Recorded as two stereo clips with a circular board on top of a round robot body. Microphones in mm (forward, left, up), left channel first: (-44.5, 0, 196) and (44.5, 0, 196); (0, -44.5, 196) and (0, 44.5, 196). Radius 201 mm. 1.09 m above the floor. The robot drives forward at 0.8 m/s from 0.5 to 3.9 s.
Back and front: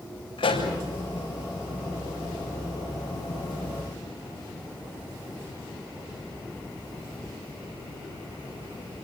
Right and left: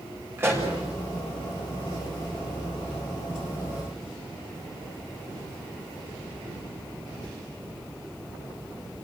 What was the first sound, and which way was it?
A pop, 155° left.